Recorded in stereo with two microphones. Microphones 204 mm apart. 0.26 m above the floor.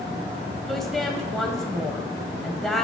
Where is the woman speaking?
Centre (ahead or behind), 1.0 m.